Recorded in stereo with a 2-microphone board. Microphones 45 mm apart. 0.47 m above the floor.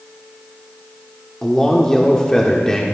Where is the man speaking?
15° left (ahead or behind), 1.2 m.